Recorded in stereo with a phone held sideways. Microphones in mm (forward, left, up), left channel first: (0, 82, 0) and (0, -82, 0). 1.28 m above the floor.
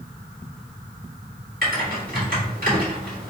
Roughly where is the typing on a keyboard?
Right.